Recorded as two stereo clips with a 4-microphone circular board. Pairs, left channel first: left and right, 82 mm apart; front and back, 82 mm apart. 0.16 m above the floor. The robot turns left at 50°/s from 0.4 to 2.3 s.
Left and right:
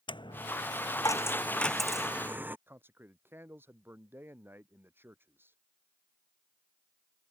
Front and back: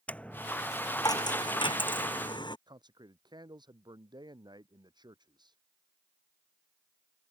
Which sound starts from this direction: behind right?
A man speaking, at 2.7 s.